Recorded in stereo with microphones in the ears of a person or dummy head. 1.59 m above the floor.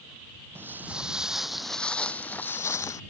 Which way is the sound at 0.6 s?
10° right (ahead or behind).